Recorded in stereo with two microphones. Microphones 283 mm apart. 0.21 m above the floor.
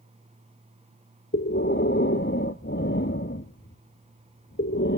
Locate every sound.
1.3 s breathing: 40° left (ahead or behind), 1.0 m